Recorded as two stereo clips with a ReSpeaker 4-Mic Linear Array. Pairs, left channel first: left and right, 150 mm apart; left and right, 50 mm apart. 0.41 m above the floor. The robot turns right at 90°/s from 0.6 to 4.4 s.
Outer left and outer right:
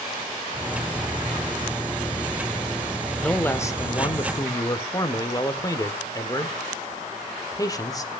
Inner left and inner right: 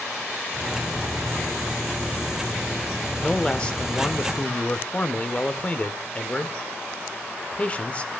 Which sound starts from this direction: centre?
A man speaking, at 3.2 s.